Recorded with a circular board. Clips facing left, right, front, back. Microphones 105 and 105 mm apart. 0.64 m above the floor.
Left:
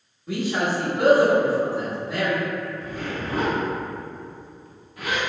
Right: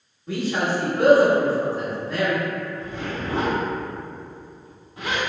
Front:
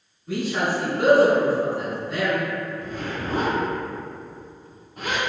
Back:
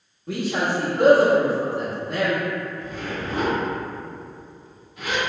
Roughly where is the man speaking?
Behind.